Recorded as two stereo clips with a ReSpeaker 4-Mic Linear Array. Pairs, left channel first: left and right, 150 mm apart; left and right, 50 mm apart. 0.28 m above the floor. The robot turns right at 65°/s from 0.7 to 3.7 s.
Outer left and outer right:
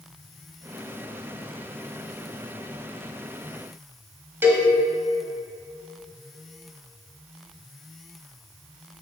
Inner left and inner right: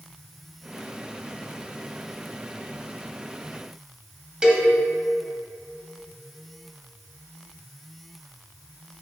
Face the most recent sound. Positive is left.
turn(degrees=-15)  # may be behind; listen again after turning